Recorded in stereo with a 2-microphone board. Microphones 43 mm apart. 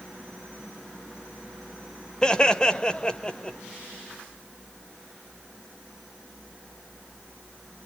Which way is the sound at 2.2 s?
20° left (ahead or behind).